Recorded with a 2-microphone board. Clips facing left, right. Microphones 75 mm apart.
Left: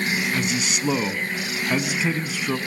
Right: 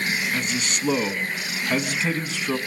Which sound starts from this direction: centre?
A man speaking, at 0.3 s.